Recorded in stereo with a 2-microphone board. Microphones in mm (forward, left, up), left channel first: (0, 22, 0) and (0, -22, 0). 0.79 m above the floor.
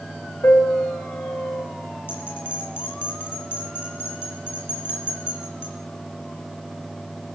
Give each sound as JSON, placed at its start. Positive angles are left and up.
{"t": 0.4, "sound": "a piano", "side_deg": 80, "distance_m": 3.0}
{"t": 2.1, "sound": "a bell", "side_deg": 55, "distance_m": 5.5}